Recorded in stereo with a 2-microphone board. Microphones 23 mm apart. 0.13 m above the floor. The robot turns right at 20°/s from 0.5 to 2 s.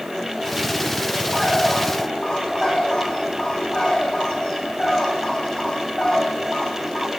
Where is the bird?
20° left (ahead or behind), 6 m; by 7.1 s 35° left (ahead or behind), 6 m.